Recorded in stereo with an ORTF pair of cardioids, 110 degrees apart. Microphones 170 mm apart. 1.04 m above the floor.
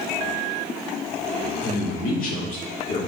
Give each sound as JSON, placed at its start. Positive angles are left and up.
{"t": 1.6, "sound": "a man speaking", "azimuth_deg": 60, "distance_m": 2.0}